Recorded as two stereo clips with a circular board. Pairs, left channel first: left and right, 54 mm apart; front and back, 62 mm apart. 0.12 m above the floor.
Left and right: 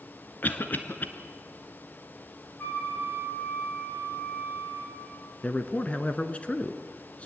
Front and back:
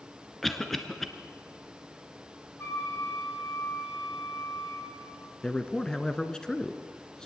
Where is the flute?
40° left, 6.5 m.